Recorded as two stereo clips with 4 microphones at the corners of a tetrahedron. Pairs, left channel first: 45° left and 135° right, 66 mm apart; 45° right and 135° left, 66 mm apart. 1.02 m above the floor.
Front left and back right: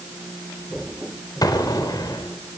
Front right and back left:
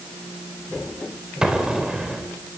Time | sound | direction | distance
1.4 | an explosion | 55° left | 4 m